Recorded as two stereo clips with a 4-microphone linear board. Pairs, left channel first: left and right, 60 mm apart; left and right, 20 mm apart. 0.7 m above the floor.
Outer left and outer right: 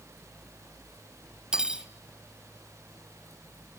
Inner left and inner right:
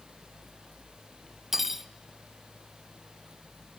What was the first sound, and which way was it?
Cutlery clinking, 15° right (ahead or behind).